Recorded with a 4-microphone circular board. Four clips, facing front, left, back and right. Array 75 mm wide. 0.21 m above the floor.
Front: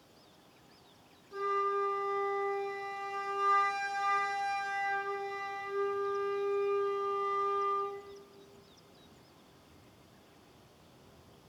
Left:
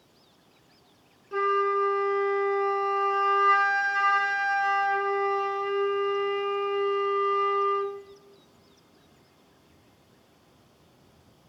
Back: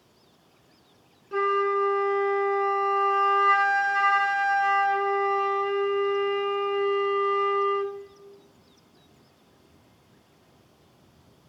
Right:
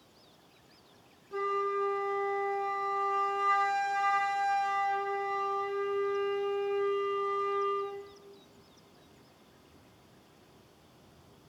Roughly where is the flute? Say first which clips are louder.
Left 7 dB, back 8 dB; behind left.